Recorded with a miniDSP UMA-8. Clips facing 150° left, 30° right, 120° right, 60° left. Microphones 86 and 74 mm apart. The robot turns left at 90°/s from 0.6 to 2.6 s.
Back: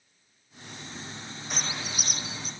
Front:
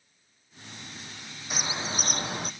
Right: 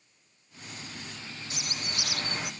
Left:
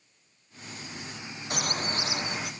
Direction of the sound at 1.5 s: 55° left.